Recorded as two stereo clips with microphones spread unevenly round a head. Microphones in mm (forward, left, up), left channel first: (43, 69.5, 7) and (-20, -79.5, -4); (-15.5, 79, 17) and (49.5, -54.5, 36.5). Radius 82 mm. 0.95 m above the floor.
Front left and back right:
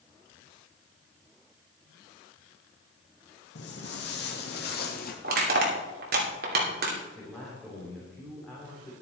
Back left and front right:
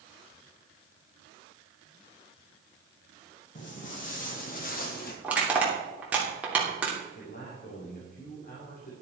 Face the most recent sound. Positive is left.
turn(degrees=155)